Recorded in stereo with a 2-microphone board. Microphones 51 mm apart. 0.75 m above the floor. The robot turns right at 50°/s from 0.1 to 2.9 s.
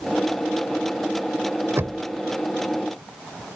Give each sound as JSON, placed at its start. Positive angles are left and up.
{"t": 1.8, "sound": "knocking", "side_deg": -55}